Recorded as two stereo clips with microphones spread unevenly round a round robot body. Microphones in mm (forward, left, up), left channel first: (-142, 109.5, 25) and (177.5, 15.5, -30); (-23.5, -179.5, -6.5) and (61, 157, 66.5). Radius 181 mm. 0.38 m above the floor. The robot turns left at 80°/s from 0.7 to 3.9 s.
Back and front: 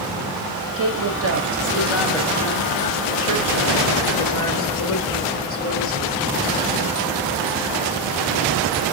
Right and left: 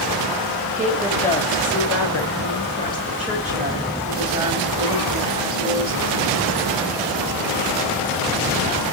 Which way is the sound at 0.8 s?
10° left.